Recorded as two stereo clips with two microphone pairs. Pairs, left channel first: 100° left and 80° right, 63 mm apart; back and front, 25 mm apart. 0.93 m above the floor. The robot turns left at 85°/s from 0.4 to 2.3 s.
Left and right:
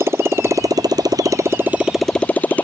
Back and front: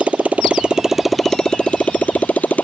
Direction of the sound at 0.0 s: 30° right.